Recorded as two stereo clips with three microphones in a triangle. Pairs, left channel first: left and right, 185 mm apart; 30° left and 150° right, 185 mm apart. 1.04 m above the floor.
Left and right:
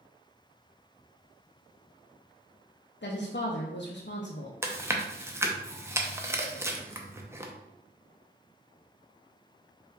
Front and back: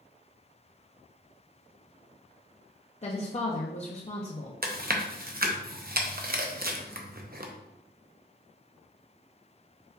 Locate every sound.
3.0 s a woman speaking: 80° left, 0.5 m
4.6 s chewing: 165° right, 0.5 m